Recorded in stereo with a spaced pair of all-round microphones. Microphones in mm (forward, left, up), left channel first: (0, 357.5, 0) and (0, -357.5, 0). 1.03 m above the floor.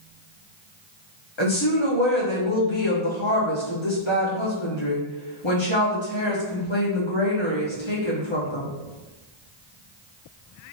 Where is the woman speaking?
40° left (ahead or behind), 1.1 m.